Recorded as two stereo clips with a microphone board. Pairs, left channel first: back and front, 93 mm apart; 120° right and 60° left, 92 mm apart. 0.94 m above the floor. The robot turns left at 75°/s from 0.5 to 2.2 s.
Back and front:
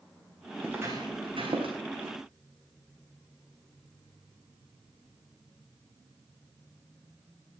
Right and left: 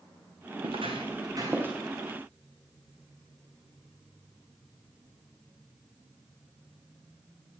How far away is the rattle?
No rattle in this recording.